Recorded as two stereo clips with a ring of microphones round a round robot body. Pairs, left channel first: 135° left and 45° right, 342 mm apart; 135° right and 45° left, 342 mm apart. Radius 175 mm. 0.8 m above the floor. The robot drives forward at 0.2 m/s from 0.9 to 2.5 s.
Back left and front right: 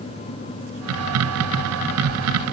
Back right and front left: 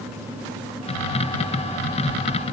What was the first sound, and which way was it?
Only background noise.